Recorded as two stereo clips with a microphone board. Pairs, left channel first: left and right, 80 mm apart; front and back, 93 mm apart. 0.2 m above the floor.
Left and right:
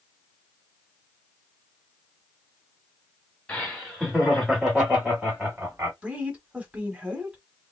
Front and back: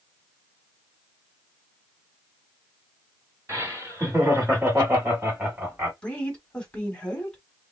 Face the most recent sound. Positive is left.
turn(degrees=-50)